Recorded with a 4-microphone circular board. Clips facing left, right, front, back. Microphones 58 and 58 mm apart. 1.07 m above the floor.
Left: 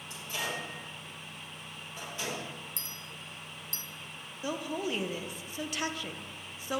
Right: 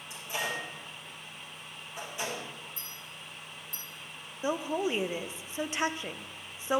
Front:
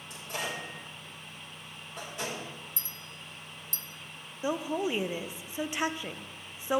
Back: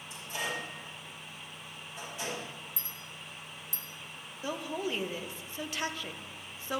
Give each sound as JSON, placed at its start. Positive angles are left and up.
{"t": 0.1, "sound": "a microwave", "azimuth_deg": -15, "distance_m": 4.5}
{"t": 2.8, "sound": "a clink", "azimuth_deg": 100, "distance_m": 0.7}
{"t": 4.4, "sound": "a woman speaking", "azimuth_deg": -50, "distance_m": 0.5}